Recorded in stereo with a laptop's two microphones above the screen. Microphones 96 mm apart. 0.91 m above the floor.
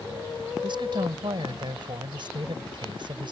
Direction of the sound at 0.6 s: 55° right (ahead or behind).